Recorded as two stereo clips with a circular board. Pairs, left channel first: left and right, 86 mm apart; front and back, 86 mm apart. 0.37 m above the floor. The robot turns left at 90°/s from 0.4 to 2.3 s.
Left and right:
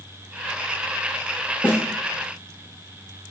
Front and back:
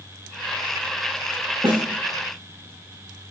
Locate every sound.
1.6 s a snare drum: 160° left, 9.5 m; by 1.8 s 140° left, 9.5 m